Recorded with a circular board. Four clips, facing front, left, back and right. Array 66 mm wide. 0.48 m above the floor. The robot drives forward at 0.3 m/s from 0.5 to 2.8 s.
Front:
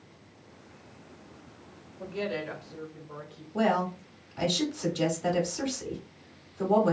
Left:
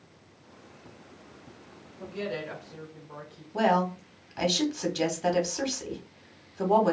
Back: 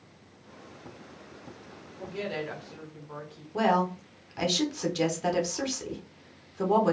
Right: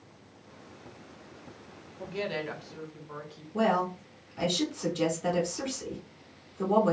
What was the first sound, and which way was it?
A woman speaking, 105° right.